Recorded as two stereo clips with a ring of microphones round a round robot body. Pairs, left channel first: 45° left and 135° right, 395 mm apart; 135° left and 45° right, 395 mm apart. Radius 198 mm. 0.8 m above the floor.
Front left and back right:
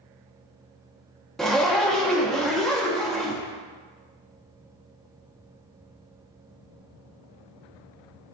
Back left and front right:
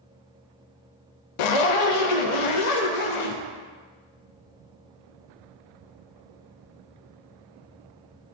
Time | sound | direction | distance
1.4 | a zipper | 135° left | 0.6 m